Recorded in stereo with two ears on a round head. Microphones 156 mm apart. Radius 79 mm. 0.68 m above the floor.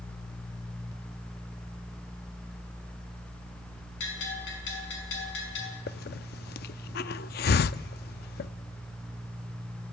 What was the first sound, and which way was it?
A bell, 75° left (ahead or behind).